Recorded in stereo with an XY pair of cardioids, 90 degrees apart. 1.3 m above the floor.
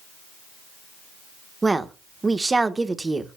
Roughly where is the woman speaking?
Ahead right.